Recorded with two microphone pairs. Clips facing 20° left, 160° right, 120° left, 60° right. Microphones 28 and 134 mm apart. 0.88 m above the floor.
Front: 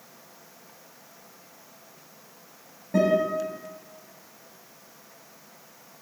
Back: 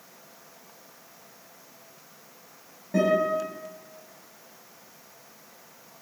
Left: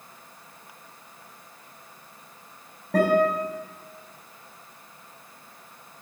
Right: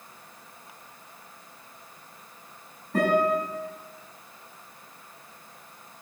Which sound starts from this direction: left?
A guitar, at 2.9 s.